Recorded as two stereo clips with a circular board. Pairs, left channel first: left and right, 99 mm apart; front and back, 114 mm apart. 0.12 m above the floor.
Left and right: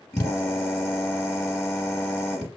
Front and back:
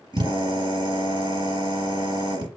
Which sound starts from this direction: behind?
A drill, at 0.1 s.